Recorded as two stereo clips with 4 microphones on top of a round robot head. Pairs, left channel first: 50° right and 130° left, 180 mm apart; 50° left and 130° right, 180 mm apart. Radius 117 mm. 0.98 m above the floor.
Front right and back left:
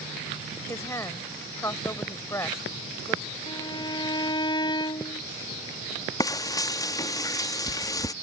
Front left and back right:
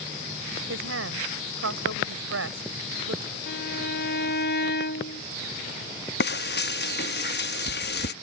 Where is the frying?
25° left.